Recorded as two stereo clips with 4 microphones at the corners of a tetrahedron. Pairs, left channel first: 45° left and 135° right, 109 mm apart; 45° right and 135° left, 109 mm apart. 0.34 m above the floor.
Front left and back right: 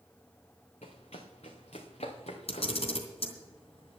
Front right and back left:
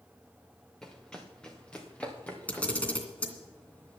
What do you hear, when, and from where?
0.8 s running footsteps: 40° left, 2 m; by 3.0 s 30° left, 3.5 m
2.5 s a camera shutter: 30° left, 2.5 m